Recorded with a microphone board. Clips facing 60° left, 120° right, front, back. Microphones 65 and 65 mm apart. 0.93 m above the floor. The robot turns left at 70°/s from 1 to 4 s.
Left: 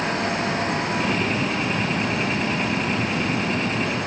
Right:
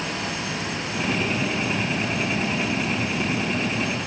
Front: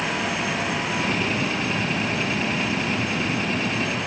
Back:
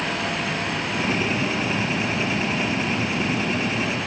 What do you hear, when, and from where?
Only background noise.